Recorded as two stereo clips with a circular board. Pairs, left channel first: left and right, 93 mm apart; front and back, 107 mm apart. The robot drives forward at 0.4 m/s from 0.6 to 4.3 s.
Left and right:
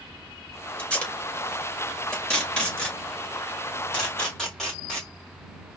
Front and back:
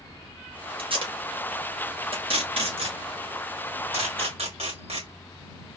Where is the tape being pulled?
165° left, 1.5 m; by 5.1 s 175° left, 2.5 m.